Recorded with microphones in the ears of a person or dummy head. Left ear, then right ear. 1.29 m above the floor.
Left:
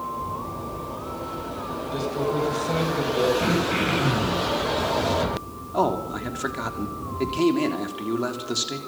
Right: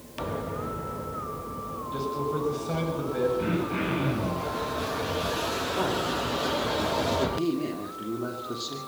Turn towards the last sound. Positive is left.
turn(degrees=60)  # may be behind; listen again after turning